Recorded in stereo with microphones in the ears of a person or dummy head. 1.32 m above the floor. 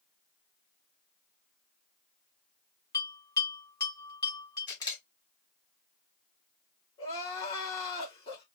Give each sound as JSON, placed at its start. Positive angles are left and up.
{"t": 2.9, "sound": "a bell", "side_deg": 20, "distance_m": 3.5}
{"t": 4.7, "sound": "a camera shutter", "side_deg": 20, "distance_m": 2.0}
{"t": 7.0, "sound": "crying", "side_deg": 25, "distance_m": 2.0}